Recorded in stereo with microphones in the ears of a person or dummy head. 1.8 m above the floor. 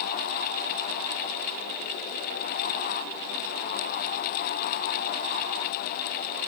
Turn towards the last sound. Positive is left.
No sound to turn to.